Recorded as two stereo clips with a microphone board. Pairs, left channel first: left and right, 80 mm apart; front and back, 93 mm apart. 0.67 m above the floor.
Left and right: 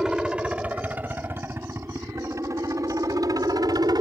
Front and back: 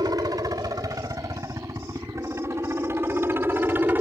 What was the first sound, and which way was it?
A helicopter, 170° right.